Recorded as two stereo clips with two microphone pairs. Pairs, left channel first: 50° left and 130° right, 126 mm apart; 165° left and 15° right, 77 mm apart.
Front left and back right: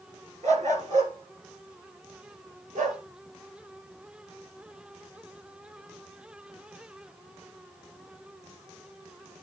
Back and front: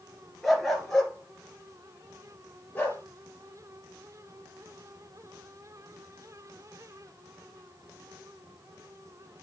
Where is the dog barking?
110° right, 2.5 m; by 3.0 s 130° right, 3 m.